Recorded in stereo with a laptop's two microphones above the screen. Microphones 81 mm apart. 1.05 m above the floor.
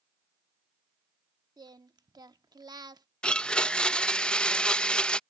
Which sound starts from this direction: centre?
A blender, at 3.2 s.